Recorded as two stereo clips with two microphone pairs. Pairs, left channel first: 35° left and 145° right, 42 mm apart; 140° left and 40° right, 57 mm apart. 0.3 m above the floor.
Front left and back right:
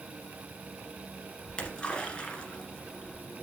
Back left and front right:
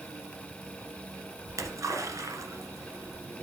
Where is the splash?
30° right, 1.5 m.